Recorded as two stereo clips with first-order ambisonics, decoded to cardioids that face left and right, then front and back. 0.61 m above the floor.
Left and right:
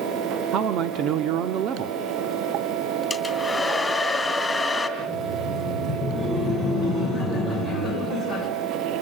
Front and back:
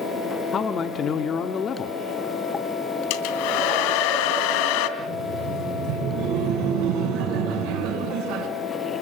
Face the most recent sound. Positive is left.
turn(degrees=-170)